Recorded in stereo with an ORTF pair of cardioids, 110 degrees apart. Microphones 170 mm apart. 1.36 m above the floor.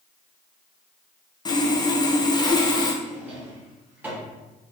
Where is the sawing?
25° left, 0.7 m.